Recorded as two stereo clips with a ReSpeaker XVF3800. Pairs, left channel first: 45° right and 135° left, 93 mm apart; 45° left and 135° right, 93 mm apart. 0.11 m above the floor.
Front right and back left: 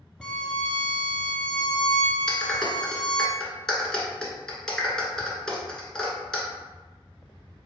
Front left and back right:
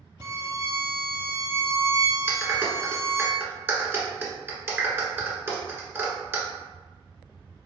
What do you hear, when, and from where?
0.2 s a violin: 115° right, 0.6 m
2.3 s a clap: 120° right, 1.2 m